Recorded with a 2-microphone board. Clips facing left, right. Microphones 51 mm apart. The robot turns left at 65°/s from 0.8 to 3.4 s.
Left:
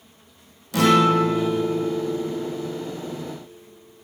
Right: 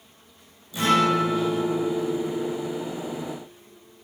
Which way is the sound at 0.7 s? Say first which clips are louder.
Left 4 dB; 95° left.